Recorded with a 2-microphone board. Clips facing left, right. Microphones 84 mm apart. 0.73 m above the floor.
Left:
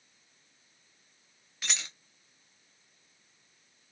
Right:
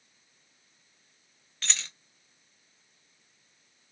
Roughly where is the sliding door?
No sliding door in this recording.